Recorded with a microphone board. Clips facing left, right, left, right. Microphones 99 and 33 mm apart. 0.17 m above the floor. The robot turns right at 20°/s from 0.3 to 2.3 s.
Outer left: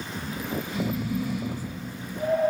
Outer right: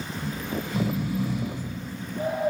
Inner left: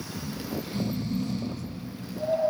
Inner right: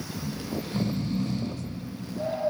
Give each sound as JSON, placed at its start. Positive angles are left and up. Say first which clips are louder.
{"t": 0.1, "sound": "snoring", "louder": "even, even", "side_deg": -60, "distance_m": 7.0}